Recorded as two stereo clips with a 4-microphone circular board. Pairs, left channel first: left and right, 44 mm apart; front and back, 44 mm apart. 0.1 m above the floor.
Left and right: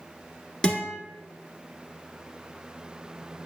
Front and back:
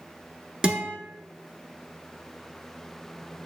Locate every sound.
0.6 s a guitar: 125° left, 1.1 m